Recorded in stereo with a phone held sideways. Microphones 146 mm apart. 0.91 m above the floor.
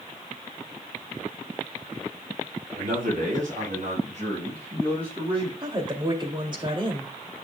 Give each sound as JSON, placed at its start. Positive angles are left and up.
{"t": 2.8, "sound": "a man speaking", "side_deg": -70, "distance_m": 5.5}
{"t": 5.6, "sound": "a woman speaking", "side_deg": -35, "distance_m": 2.0}